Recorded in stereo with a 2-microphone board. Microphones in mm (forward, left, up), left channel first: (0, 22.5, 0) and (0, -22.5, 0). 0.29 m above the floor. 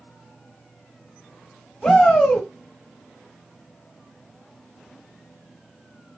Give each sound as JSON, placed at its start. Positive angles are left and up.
{"t": 1.8, "sound": "a shout", "side_deg": 10, "distance_m": 1.3}